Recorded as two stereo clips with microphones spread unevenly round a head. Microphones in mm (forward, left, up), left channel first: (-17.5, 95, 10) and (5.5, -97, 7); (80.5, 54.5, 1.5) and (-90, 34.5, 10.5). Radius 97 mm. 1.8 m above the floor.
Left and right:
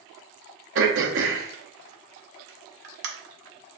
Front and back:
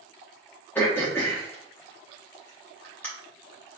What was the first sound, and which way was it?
Throat clearing, 75° right.